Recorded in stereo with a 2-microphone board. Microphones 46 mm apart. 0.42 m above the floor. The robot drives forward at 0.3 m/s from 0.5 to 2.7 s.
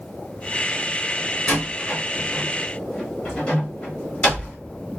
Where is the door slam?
30° left (ahead or behind), 1.1 m; by 4.5 s 25° left (ahead or behind), 1.4 m.